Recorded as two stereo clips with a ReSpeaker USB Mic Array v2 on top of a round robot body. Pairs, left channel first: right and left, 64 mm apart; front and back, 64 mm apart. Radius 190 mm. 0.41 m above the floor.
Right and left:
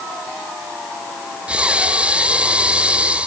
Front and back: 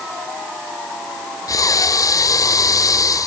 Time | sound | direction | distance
1.5 | breathing | 20° left | ?